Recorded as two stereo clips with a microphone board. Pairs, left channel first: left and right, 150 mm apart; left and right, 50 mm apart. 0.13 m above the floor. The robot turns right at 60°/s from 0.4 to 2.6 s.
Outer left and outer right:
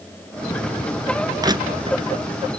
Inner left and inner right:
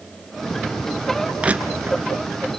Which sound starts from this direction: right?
Crushing, at 1.4 s.